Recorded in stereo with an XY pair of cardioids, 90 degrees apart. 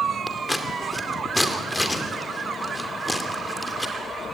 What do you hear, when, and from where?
0.3 s scissors: 10° left, 2.5 m